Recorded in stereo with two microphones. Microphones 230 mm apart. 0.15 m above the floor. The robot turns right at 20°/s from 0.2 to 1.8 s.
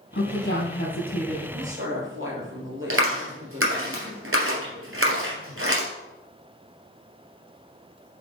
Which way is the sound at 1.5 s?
60° right (ahead or behind).